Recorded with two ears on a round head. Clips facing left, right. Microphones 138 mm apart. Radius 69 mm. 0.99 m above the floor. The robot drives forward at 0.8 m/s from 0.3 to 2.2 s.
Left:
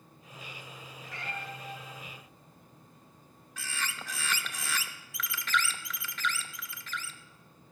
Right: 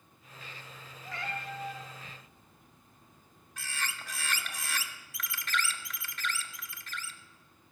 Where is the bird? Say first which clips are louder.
Left 1 dB; 70° left (ahead or behind), 0.6 m.